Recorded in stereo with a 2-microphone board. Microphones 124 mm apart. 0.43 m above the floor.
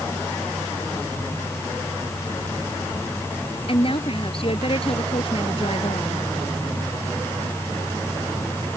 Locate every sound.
3.7 s a woman speaking: 50° left (ahead or behind)